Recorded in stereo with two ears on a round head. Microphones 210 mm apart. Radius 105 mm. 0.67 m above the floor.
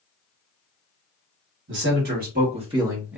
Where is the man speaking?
50° right (ahead or behind), 1.4 m; by 3.2 s 5° right (ahead or behind), 1.1 m.